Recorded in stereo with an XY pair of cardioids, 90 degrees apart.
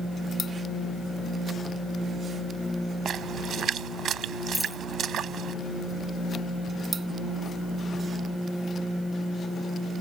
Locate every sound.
3.0 s a splash: 70° right
4.5 s a dropped coin: 10° right